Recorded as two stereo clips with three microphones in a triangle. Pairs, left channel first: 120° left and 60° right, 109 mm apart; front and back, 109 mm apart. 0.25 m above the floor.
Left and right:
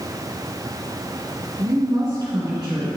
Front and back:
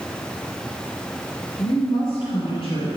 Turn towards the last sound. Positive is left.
turn(degrees=-25)